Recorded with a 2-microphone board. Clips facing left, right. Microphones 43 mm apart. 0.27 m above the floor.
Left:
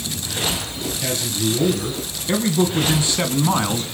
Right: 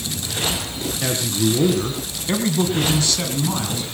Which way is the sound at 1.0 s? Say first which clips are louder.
Right 3 dB; 40° right (ahead or behind).